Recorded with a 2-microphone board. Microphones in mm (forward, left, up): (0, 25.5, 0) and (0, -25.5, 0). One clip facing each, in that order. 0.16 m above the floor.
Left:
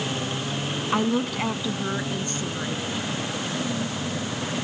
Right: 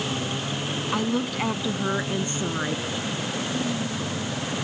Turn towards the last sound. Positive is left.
turn(degrees=-35)  # may be behind; listen again after turning